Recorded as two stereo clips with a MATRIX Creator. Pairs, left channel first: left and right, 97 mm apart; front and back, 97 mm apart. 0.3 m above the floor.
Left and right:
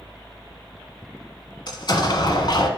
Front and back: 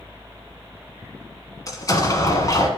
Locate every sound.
1.7 s an explosion: 50° left, 1.4 m